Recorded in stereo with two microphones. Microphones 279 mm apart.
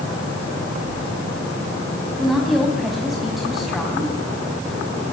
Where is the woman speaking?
Centre (ahead or behind), 4.5 m.